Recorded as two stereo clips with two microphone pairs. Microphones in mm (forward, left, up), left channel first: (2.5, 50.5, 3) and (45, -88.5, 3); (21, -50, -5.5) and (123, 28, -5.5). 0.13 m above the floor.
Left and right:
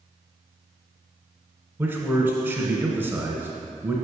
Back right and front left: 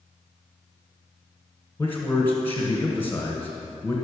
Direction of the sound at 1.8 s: 110° right.